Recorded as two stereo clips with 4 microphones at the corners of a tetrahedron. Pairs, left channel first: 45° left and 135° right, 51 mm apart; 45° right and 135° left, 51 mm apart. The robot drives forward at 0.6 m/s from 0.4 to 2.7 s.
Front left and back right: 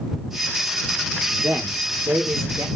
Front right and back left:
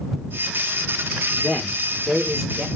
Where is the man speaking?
110° right, 1.1 m; by 2.7 s 140° right, 1.5 m.